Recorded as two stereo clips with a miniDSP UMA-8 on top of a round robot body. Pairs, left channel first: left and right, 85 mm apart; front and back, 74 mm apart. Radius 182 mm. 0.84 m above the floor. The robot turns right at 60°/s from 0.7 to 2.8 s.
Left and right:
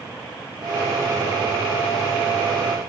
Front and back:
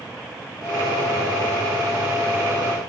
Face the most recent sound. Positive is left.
No sound to turn to.